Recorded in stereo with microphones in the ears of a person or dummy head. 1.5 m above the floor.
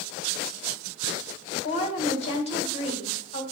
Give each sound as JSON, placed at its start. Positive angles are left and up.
{"t": 1.6, "sound": "a woman speaking", "side_deg": 35, "distance_m": 1.9}